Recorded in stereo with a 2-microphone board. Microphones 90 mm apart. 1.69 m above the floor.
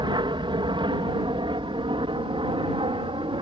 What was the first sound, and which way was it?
An aircraft, 60° right (ahead or behind).